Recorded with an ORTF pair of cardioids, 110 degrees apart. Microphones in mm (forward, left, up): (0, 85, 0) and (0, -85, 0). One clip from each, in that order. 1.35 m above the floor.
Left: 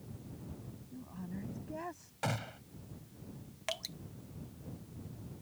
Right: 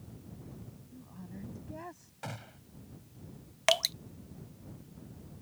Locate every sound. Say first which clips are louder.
0.9 s a woman speaking: left 4 dB; 15° left; by 2.1 s 10° left
2.2 s a gunshot: left 6 dB; 35° left
3.7 s dripping: right 13 dB; 60° right